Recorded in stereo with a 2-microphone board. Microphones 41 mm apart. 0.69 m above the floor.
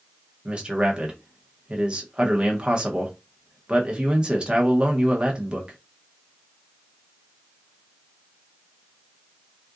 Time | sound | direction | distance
0.5 | a man speaking | 25° right (ahead or behind) | 0.8 m